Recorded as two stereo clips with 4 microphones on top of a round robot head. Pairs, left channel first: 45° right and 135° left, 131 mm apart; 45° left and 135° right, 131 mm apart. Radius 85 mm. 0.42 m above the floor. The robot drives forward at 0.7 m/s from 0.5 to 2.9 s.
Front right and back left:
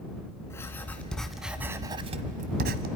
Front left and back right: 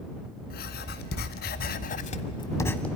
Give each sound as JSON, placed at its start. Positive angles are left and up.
{"t": 0.5, "sound": "writing", "azimuth_deg": 30, "distance_m": 1.4}